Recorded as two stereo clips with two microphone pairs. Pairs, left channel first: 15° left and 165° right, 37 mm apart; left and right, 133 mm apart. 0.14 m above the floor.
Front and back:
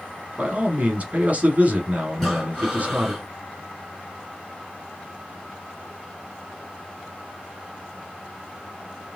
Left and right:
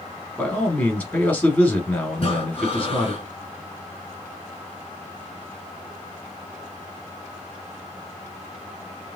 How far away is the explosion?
I don't hear an explosion.